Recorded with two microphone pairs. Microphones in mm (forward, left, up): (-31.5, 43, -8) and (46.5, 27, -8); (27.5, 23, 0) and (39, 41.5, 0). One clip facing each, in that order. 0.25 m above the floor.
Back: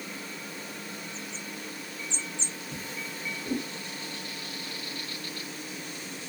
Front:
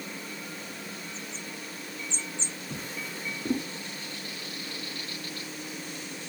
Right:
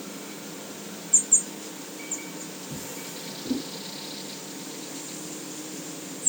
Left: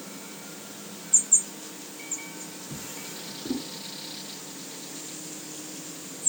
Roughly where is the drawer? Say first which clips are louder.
Front 2 dB, right 1 dB; ahead.